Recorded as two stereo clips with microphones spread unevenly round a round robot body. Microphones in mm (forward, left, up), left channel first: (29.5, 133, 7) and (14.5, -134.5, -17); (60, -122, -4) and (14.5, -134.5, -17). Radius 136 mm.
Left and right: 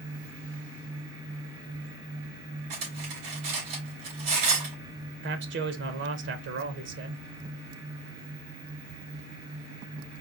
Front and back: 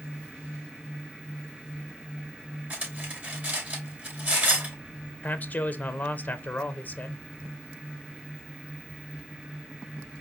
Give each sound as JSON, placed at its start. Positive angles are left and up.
{"t": 2.7, "sound": "cutlery clinking", "azimuth_deg": -115, "distance_m": 3.5}
{"t": 5.2, "sound": "a man speaking", "azimuth_deg": -50, "distance_m": 0.6}